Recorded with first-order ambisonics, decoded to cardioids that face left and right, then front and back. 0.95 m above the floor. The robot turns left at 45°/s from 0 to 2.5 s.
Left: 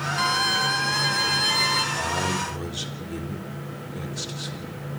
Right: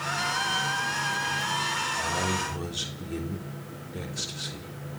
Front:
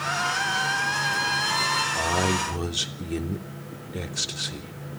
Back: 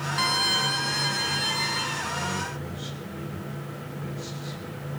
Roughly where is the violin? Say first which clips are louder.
Left 7 dB, back 4 dB; behind left.